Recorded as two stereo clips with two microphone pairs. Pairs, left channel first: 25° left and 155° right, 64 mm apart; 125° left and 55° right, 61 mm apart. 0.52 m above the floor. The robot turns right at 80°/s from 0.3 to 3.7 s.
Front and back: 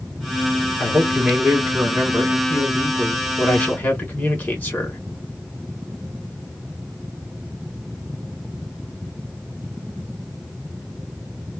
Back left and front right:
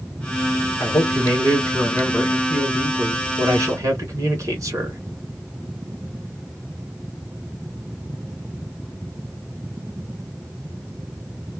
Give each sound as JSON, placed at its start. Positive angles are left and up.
{"t": 0.8, "sound": "a man speaking", "azimuth_deg": 95, "distance_m": 1.8}